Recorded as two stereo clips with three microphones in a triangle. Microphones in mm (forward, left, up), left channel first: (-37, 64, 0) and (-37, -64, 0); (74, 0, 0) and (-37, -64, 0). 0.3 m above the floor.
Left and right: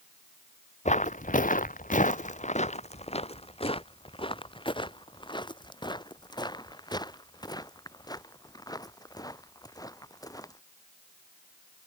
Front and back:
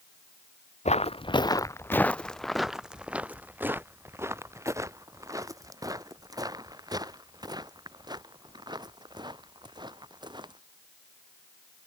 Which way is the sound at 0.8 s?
60° left.